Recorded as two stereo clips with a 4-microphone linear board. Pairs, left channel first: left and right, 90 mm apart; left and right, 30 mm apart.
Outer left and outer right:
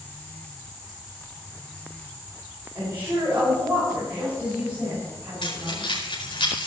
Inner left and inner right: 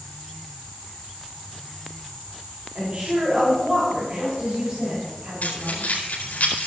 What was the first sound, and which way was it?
A woman speaking, 25° right (ahead or behind).